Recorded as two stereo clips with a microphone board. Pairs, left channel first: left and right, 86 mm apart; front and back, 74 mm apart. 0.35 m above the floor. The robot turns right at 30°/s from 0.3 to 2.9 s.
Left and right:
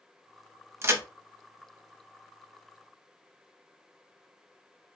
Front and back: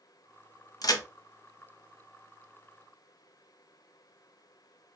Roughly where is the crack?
Ahead right.